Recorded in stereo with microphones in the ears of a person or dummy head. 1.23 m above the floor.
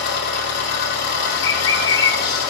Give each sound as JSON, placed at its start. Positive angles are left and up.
{"t": 0.0, "sound": "an engine running", "side_deg": 65, "distance_m": 1.6}
{"t": 1.4, "sound": "a bird", "side_deg": 35, "distance_m": 0.5}